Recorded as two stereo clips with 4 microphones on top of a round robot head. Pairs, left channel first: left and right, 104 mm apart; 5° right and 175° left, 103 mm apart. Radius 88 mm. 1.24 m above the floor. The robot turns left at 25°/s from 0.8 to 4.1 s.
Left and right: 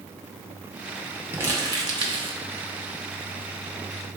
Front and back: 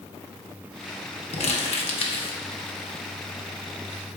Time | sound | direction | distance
1.3 | crumpling | 20° right | 0.9 m